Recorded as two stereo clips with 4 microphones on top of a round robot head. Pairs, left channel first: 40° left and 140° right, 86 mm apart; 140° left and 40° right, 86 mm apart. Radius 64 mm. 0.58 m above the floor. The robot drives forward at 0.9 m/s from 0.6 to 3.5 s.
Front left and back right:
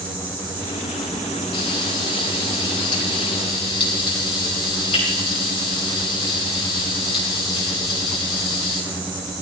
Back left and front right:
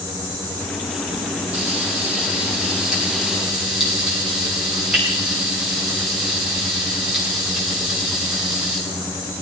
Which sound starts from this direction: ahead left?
Frying, at 1.5 s.